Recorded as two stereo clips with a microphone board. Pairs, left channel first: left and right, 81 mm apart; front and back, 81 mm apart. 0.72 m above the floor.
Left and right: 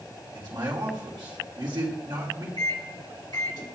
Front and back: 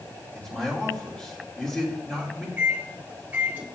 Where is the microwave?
115° left, 1.4 m.